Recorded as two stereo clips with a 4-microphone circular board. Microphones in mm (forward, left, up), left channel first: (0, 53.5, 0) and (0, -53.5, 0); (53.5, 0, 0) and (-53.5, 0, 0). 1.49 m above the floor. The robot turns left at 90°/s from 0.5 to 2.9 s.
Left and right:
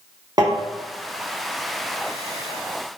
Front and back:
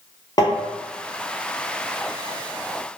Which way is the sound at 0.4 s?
45° right.